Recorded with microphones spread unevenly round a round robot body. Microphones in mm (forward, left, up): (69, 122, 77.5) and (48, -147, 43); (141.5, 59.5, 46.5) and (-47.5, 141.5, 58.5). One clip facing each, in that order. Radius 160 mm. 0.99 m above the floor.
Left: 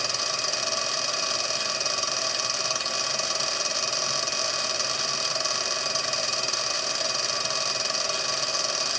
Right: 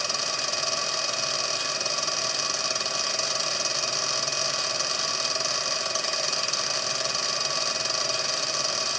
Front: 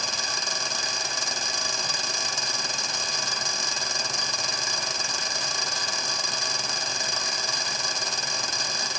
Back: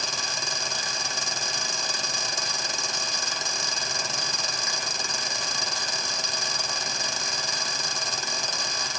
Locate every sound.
Only background noise.